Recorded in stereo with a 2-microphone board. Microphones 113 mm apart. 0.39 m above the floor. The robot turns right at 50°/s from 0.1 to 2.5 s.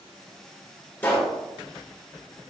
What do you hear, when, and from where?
1.0 s a pop: 20° left (ahead or behind), 1.6 m; by 1.4 s 10° left (ahead or behind), 1.6 m